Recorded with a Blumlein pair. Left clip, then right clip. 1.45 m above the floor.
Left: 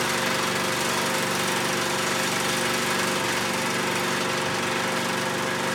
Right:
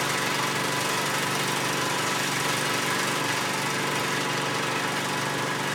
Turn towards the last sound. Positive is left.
turn(degrees=10)